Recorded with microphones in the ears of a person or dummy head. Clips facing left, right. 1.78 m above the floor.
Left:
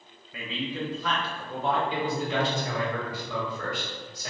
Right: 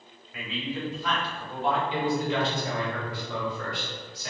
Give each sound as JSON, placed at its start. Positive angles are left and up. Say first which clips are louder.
{"t": 0.3, "sound": "a man speaking", "louder": "left 1 dB", "side_deg": 70, "distance_m": 1.2}
{"t": 1.9, "sound": "a man speaking", "louder": "right 2 dB", "side_deg": 40, "distance_m": 1.8}